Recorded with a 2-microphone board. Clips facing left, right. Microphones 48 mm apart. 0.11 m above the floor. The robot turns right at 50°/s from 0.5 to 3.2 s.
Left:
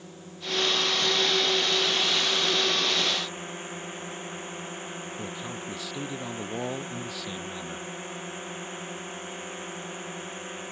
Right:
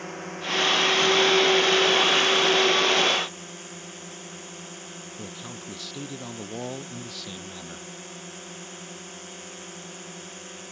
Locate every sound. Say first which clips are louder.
0.0 s a drone: right 7 dB; 115° right; by 10.7 s 20° left
5.2 s a man speaking: left 3 dB; 5° left (ahead or behind)